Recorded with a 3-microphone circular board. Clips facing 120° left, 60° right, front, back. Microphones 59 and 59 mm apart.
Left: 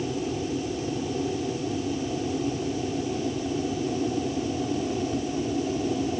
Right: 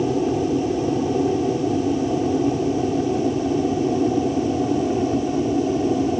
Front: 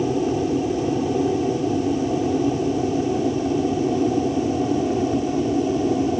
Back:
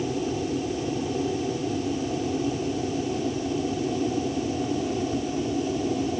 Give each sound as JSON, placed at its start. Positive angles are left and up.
{"t": 0.0, "sound": "an aircraft", "azimuth_deg": -45}